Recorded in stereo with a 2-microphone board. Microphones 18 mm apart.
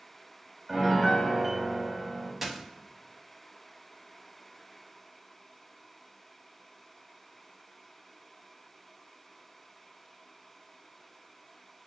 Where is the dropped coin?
15° right (ahead or behind), 0.7 m.